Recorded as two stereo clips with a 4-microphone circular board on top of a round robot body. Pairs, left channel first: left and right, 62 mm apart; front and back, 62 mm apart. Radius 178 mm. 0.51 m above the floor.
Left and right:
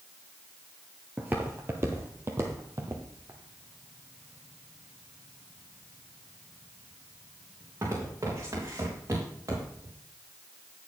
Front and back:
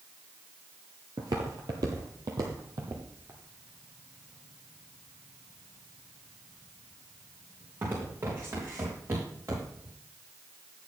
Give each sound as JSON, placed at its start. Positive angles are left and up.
{"t": 1.2, "sound": "footsteps", "azimuth_deg": -155, "distance_m": 0.6}